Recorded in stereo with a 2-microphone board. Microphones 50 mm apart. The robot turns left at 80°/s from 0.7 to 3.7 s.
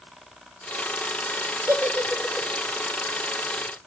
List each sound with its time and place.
1.7 s a giggle: 55° right (ahead or behind), 2 m; by 2.5 s 10° left (ahead or behind), 2 m